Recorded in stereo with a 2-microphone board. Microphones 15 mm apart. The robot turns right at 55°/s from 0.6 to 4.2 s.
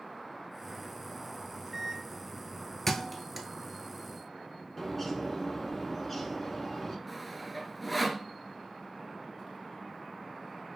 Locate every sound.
1.4 s a microwave: 20° right (ahead or behind), 0.9 m; by 2.8 s 10° left (ahead or behind), 0.9 m
2.9 s a thud: 20° left (ahead or behind), 0.6 m; by 3.5 s 10° right (ahead or behind), 0.6 m
4.8 s a bird: 15° left (ahead or behind), 1.0 m
7.1 s sawing: centre (ahead or behind), 0.5 m